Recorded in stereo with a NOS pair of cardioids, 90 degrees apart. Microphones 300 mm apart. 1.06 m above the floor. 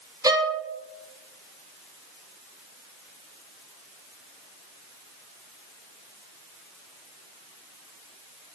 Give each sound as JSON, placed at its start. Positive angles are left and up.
{"t": 0.2, "sound": "a violin", "azimuth_deg": -10, "distance_m": 0.7}